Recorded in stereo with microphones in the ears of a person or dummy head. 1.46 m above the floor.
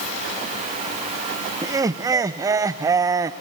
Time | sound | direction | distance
1.6 | laughter | 20° right (ahead or behind) | 0.5 m